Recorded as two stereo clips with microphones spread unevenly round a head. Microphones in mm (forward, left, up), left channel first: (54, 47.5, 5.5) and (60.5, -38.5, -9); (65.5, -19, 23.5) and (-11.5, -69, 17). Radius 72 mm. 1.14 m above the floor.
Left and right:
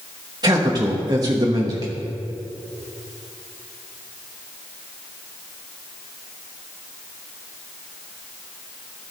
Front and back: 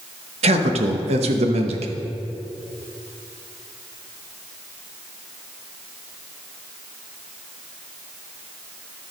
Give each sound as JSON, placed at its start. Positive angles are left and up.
{"t": 0.4, "sound": "a man speaking", "azimuth_deg": -150, "distance_m": 1.0}